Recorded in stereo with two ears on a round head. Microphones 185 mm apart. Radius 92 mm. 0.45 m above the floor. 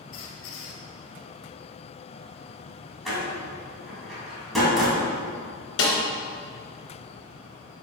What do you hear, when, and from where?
0.1 s a squeak: 80° left, 1.4 m
3.0 s a door slam: centre (ahead or behind), 2.5 m
5.8 s a snare drum: 75° left (ahead or behind), 2.5 m